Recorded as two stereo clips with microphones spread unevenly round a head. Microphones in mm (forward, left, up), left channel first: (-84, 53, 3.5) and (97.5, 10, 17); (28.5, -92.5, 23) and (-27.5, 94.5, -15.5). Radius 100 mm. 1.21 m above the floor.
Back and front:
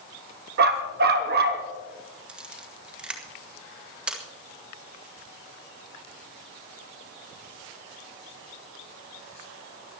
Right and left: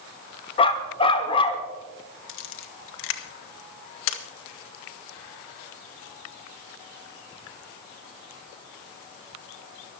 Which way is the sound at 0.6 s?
25° right.